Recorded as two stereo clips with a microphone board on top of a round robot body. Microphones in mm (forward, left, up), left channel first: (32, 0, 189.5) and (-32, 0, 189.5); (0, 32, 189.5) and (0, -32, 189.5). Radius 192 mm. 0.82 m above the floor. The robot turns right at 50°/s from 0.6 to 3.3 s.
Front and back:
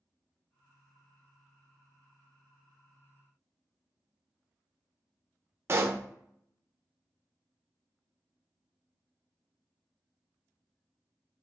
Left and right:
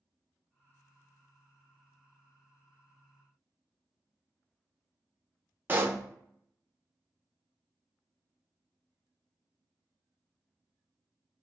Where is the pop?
140° right, 0.7 m.